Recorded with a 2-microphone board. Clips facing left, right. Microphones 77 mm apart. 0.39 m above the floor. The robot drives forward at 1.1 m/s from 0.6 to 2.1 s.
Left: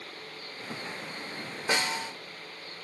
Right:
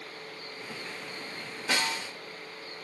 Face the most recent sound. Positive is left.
turn(degrees=25)  # may be behind; listen again after turning